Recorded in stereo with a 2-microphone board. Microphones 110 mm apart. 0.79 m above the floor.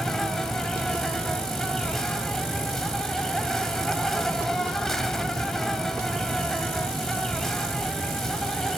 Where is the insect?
5° left (ahead or behind), 1.0 m.